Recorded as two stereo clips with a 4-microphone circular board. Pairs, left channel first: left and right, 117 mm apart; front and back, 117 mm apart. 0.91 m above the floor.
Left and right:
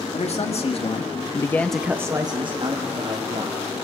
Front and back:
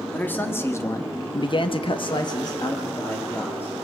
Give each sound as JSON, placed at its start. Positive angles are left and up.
{"t": 0.1, "sound": "a man speaking", "azimuth_deg": 75, "distance_m": 2.0}